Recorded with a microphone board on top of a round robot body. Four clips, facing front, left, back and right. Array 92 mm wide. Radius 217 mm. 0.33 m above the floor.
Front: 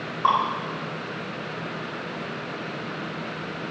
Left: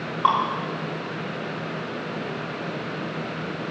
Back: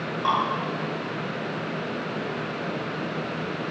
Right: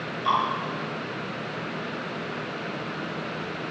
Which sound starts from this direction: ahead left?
Dripping, at 0.2 s.